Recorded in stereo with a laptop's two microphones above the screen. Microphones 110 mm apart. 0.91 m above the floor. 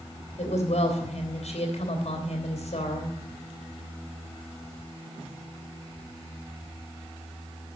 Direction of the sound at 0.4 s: 85° left.